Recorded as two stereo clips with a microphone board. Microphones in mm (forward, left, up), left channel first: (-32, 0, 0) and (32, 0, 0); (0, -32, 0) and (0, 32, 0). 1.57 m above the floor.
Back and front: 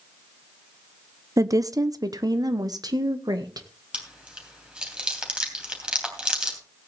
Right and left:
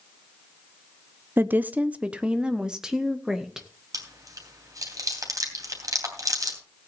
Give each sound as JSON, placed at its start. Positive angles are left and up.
{"t": 1.4, "sound": "a woman speaking", "azimuth_deg": 35, "distance_m": 0.7}
{"t": 3.9, "sound": "chewing", "azimuth_deg": 75, "distance_m": 3.0}